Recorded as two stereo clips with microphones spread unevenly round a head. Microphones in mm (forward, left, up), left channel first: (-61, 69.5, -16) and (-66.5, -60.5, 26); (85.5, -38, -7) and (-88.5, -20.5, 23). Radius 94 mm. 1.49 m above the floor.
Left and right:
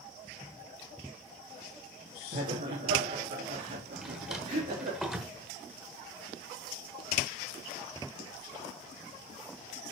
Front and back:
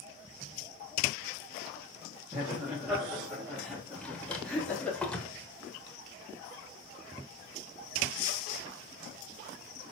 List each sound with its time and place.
2.3 s laughter: 110° right, 3 m; by 5.0 s 90° right, 4 m
4.0 s a drawer: 105° right, 1.2 m